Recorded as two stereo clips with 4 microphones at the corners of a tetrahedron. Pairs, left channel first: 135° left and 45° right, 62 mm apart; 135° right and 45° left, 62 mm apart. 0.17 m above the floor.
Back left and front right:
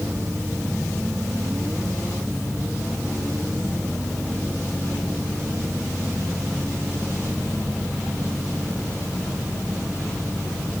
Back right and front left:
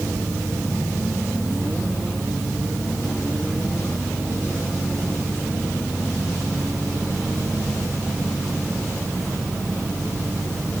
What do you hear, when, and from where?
Only background noise.